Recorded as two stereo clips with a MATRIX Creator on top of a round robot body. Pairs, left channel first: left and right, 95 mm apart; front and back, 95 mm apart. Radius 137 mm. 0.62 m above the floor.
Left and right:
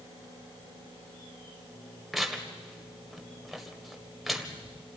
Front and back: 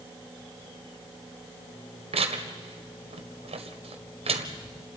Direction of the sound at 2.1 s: Straight behind.